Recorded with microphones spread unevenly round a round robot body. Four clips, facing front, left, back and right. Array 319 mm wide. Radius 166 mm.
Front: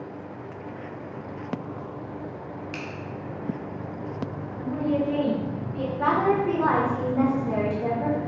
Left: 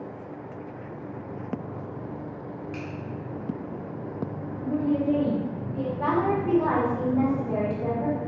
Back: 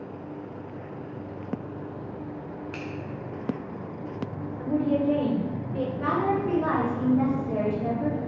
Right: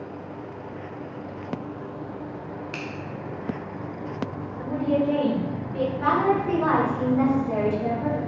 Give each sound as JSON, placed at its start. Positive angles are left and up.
{"t": 2.7, "sound": "a finger snap", "azimuth_deg": -140, "distance_m": 0.8}
{"t": 4.6, "sound": "a woman speaking", "azimuth_deg": -110, "distance_m": 1.6}
{"t": 6.0, "sound": "a woman speaking", "azimuth_deg": 10, "distance_m": 1.5}